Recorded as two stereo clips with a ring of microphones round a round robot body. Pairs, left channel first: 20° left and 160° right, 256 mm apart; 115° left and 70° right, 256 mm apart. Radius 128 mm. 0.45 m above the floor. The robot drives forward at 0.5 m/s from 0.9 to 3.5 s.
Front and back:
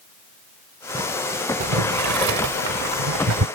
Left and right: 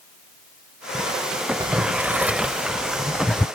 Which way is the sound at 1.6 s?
140° right.